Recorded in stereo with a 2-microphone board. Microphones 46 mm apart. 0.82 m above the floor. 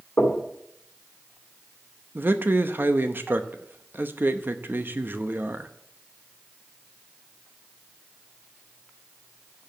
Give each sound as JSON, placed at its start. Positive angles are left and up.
{"t": 0.2, "sound": "knocking", "side_deg": 45, "distance_m": 2.5}
{"t": 2.1, "sound": "a man speaking", "side_deg": -50, "distance_m": 0.7}